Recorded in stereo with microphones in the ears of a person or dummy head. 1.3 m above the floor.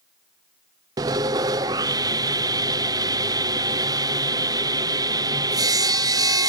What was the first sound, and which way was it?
Sawing, 20° right (ahead or behind).